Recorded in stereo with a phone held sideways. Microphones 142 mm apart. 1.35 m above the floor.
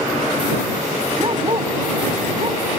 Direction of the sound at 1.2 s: 40° right (ahead or behind).